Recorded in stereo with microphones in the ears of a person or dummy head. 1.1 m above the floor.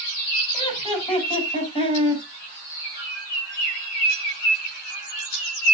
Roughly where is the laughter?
Left.